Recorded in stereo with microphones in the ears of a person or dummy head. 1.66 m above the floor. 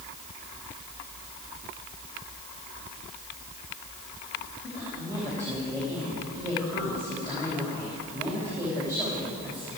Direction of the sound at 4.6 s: 20° right (ahead or behind).